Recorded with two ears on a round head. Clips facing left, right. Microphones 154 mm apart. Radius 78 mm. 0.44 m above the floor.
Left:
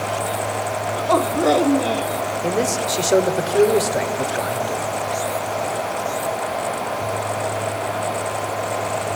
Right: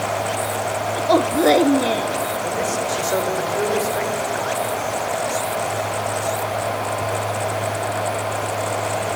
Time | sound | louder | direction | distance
1.0 | a woman speaking | right 2 dB | 15° right (ahead or behind) | 0.9 m
2.4 | a man speaking | left 2 dB | 45° left (ahead or behind) | 1.6 m